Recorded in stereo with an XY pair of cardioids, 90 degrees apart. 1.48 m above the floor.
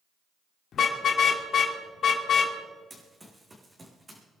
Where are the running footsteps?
25° right, 5 m.